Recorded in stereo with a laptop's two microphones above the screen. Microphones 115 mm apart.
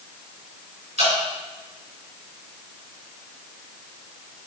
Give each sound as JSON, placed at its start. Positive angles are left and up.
{"t": 1.0, "sound": "dripping", "side_deg": -85, "distance_m": 3.0}